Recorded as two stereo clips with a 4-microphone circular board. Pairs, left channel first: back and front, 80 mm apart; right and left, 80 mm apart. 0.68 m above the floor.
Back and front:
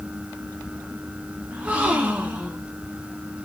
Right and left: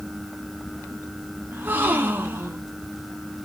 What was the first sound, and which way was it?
A gasp, 55° left.